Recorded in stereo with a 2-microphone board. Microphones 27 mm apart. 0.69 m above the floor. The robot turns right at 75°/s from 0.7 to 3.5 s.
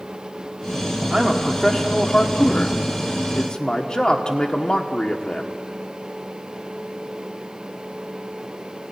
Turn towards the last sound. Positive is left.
turn(degrees=145)